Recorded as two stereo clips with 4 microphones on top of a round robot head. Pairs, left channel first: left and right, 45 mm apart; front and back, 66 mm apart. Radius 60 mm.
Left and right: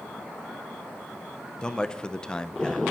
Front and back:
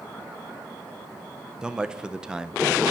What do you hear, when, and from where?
1.6 s a man speaking: 120° left, 0.6 m